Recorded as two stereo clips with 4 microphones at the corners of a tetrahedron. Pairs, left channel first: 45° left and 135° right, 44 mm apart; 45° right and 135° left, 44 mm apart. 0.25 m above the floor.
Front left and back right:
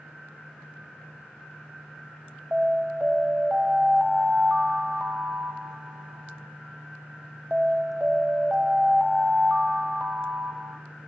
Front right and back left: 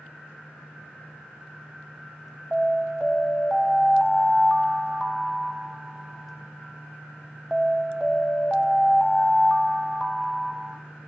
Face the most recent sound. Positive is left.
turn(degrees=-150)